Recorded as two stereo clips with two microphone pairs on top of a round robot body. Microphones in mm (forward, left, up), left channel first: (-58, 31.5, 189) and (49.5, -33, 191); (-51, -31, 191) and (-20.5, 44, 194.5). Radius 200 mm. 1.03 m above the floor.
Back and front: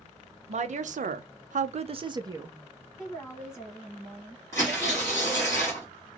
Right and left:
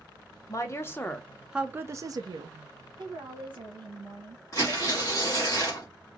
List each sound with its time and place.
0.5 s a woman speaking: 65° right, 0.8 m; by 2.6 s 40° left, 0.8 m
3.0 s a woman speaking: 65° left, 1.4 m
4.5 s tearing paper: 145° right, 0.5 m